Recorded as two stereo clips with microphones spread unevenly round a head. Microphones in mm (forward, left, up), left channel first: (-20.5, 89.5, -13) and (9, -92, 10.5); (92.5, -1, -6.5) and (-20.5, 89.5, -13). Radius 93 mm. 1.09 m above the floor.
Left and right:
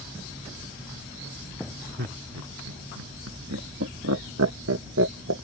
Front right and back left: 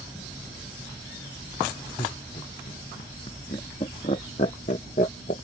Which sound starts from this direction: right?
Laughter, at 2.0 s.